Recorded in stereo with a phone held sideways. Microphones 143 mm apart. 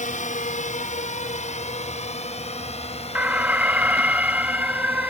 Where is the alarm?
15° right (ahead or behind).